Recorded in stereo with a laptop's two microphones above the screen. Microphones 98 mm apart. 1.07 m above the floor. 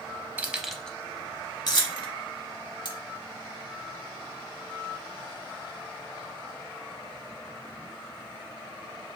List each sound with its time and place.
0.4 s keys jangling: 20° right (ahead or behind), 0.7 m; by 2.1 s 55° left (ahead or behind), 0.9 m
2.9 s cutlery clinking: 45° left (ahead or behind), 0.6 m